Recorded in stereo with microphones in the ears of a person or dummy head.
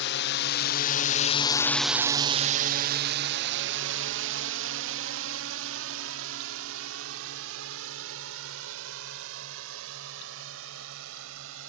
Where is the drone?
60° left (ahead or behind); by 11.7 s 85° right.